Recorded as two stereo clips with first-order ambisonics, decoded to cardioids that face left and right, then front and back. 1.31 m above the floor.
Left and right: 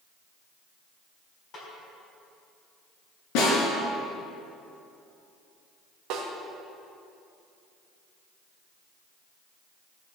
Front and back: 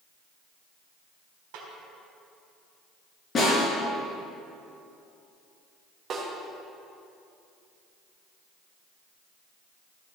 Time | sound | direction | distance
1.5 | a snare drum | 155° left | 3.5 m
3.4 | a snare drum | 65° left | 4.5 m
6.1 | a snare drum | 120° right | 1.7 m